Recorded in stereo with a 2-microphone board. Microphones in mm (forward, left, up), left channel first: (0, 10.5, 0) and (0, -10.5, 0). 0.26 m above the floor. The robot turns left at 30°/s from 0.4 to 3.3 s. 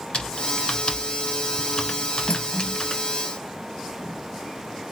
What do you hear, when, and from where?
0.1 s typing on a keyboard: 70° left (ahead or behind), 0.9 m; by 3.0 s 25° left (ahead or behind), 0.9 m
2.3 s cutlery clinking: 50° left (ahead or behind), 1.0 m; by 2.8 s 60° left (ahead or behind), 1.0 m